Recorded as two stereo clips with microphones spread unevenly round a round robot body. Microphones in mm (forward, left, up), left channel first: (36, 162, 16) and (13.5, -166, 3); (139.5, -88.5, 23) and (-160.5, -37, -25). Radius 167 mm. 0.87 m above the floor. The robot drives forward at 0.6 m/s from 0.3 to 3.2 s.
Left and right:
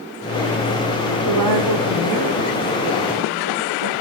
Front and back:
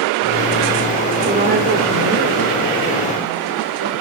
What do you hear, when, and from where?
1.2 s a woman speaking: 125° right, 2 m; by 3.9 s 145° right, 3 m